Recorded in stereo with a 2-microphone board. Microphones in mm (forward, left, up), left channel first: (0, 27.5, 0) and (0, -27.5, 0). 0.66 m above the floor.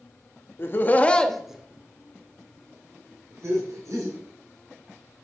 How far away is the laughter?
About 0.7 m.